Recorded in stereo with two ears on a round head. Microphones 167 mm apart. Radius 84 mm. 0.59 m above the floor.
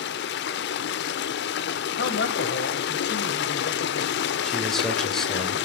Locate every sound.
0.0 s running water: 65° left (ahead or behind), 0.9 m
2.0 s a man speaking: 60° left (ahead or behind), 3.5 m
4.4 s a man speaking: centre (ahead or behind), 2.5 m